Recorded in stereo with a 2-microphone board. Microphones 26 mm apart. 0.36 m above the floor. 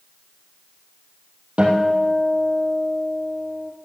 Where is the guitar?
55° right (ahead or behind), 3.5 m.